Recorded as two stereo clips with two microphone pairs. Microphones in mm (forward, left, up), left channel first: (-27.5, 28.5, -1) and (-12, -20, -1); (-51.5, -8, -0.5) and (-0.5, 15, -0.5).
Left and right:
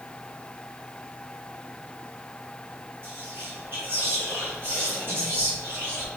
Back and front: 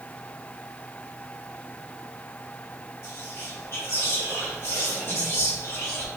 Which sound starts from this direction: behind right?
Whispering, at 3.0 s.